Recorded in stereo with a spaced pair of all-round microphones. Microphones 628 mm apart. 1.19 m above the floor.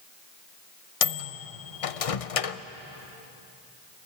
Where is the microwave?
60° left (ahead or behind), 0.7 m.